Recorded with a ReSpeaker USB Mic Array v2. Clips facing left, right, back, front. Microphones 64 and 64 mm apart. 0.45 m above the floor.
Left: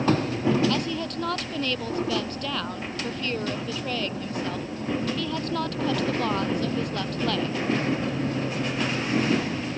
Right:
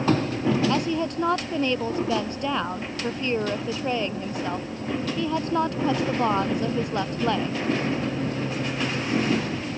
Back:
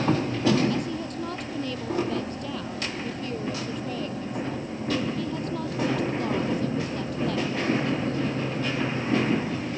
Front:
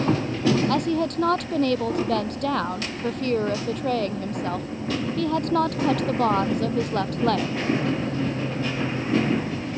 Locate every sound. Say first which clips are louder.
0.7 s a woman speaking: right 3 dB, front 6 dB; 20° right